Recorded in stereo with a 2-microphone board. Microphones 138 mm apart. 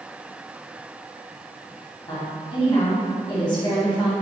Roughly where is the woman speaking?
Left.